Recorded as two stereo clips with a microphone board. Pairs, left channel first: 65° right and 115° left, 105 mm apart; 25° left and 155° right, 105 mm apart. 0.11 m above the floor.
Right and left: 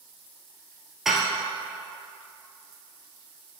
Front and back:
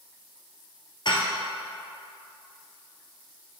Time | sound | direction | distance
1.1 | dishes clattering | 25° left | 1.4 m